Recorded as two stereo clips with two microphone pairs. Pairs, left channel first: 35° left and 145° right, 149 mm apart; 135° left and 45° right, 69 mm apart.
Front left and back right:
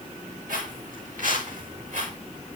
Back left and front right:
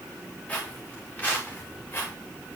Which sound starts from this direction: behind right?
Footsteps, at 0.5 s.